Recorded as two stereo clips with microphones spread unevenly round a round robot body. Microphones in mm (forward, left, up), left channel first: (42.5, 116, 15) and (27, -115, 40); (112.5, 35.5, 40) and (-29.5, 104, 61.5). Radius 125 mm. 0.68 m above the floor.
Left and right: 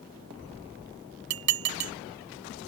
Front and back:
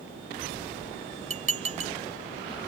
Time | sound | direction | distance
1.3 | dishes clattering | 145° right | ?